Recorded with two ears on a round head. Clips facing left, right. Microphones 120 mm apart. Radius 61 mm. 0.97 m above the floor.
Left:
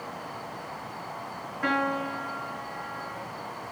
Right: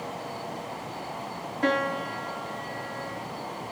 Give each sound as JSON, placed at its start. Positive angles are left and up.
{"t": 1.6, "sound": "a piano", "side_deg": -35, "distance_m": 1.0}